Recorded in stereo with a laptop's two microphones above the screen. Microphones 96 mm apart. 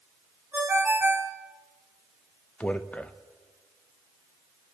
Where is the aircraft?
No aircraft in this recording.